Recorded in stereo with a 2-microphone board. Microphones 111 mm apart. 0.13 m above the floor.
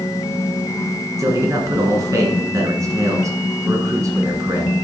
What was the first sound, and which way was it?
A man speaking, 30° right (ahead or behind).